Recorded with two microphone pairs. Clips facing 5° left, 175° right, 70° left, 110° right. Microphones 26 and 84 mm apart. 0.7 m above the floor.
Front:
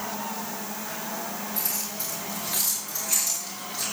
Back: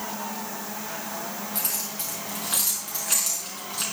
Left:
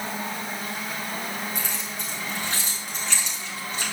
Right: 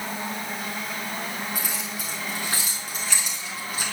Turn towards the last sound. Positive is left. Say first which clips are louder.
# even, even
turn(degrees=170)